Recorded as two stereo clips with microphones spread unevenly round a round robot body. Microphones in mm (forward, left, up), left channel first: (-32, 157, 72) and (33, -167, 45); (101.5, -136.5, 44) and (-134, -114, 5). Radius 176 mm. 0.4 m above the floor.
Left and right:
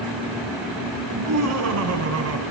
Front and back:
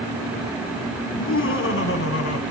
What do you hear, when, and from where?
1.1 s laughter: 40° right, 6 m; by 2.4 s 35° right, 4.5 m